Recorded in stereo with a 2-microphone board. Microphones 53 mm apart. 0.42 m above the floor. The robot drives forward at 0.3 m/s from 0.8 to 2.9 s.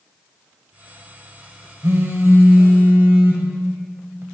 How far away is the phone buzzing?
About 0.6 m.